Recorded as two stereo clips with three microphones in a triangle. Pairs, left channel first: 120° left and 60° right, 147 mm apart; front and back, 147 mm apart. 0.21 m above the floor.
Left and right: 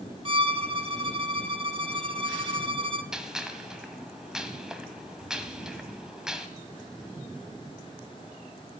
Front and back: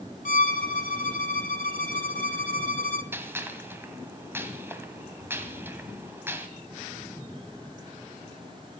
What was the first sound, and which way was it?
A violin, 15° right.